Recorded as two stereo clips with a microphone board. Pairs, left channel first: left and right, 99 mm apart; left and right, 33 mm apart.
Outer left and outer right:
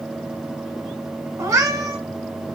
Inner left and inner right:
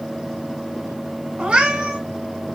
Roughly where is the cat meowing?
Right.